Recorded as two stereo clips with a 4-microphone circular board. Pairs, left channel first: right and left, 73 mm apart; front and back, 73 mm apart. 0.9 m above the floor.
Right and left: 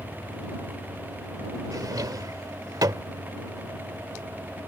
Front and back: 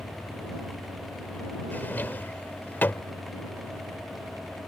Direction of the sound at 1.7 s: 65° left.